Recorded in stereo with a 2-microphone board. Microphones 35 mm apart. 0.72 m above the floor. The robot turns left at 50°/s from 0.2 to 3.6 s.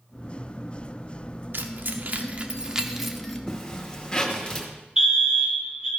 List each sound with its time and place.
1.5 s keys jangling: 70° right (ahead or behind), 1.0 m; by 3.4 s 10° left (ahead or behind), 1.0 m
3.5 s a zipper: 15° left (ahead or behind), 2 m; by 4.7 s 20° left (ahead or behind), 2 m
5.0 s a fire alarm: 25° right (ahead or behind), 2.5 m